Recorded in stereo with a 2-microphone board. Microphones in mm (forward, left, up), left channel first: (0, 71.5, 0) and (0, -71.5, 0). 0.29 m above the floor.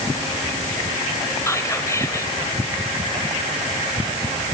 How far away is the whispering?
About 1.1 m.